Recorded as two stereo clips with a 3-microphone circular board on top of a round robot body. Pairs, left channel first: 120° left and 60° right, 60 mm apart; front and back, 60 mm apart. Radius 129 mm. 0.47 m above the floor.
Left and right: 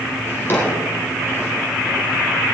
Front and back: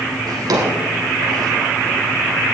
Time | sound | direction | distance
0.3 | a drawer | straight behind | 2.5 m